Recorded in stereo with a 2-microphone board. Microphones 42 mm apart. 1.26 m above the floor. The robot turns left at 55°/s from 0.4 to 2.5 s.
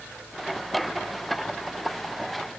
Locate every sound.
Only background noise.